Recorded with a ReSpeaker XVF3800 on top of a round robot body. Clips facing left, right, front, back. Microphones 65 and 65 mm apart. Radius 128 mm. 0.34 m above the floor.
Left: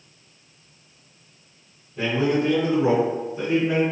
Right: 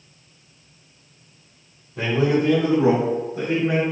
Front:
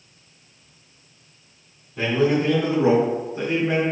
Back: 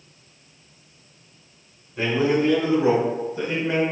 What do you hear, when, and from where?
2.0 s a man speaking: 90° right, 3.5 m; by 3.8 s 50° right, 4 m